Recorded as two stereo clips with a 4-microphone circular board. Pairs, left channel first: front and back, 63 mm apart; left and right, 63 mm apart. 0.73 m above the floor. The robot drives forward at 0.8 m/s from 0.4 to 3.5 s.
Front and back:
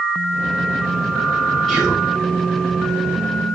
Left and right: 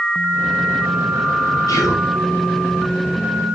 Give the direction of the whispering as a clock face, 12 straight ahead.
9 o'clock.